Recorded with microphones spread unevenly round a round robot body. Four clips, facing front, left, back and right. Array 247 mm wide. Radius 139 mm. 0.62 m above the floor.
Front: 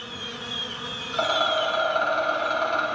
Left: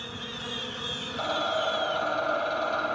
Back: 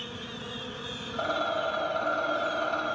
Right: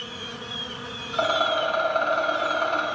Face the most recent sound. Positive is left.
turn(degrees=-55)